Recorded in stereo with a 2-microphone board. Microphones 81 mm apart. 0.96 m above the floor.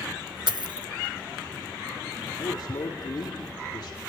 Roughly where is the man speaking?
Left.